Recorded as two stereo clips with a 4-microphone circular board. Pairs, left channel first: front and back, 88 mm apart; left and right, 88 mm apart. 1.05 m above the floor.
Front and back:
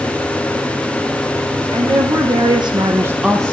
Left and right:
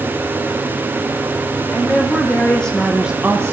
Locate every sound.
1.7 s a woman speaking: 160° left, 2.5 m; by 3.5 s 60° right, 0.9 m